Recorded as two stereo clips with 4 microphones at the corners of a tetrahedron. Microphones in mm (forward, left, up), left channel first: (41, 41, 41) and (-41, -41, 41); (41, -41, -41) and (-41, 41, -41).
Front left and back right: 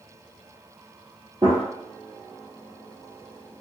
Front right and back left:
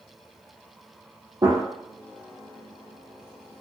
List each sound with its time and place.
1.4 s a gunshot: 175° right, 1.6 m